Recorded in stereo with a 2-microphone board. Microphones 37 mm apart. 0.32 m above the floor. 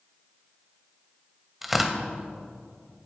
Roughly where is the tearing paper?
Centre.